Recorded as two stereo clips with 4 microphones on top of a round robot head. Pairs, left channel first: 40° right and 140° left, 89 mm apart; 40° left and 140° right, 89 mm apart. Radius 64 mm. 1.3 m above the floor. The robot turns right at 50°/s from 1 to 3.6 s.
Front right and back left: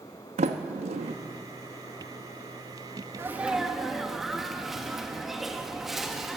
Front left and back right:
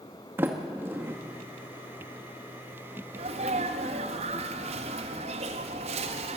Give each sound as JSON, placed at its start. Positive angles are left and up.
{"t": 0.4, "sound": "a sliding door", "azimuth_deg": 150, "distance_m": 1.2}
{"t": 3.1, "sound": "a sneeze", "azimuth_deg": -155, "distance_m": 1.9}